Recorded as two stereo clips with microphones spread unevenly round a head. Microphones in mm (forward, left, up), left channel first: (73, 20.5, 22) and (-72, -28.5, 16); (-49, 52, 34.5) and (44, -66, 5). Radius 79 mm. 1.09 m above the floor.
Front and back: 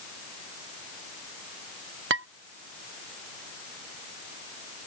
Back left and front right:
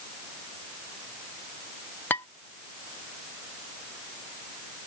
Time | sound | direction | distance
2.1 | dishes clattering | 155° right | ?